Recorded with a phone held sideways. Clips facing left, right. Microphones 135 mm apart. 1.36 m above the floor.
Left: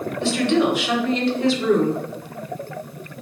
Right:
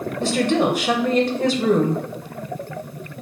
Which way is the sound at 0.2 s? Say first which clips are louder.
Even; 45° right (ahead or behind).